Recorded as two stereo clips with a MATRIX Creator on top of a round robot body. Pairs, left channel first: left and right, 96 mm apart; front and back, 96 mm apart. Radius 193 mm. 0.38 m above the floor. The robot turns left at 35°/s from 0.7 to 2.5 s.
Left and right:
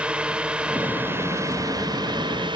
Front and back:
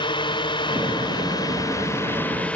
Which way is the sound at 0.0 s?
10° right.